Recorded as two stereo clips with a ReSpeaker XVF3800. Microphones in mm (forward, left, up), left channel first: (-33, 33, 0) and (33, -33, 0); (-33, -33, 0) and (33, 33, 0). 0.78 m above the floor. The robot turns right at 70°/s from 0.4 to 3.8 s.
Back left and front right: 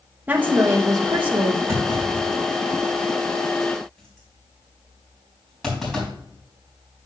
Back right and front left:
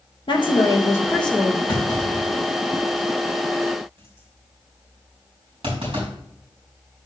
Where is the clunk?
100° right, 4 m; by 6.1 s 50° left, 4 m.